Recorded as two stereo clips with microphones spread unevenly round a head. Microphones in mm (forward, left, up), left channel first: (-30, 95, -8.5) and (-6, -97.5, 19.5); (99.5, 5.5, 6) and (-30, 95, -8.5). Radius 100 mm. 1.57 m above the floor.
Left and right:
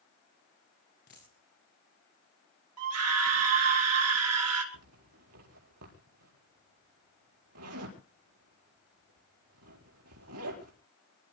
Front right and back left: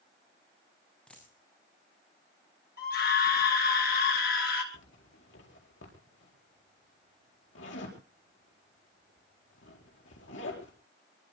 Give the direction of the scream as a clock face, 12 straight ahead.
3 o'clock.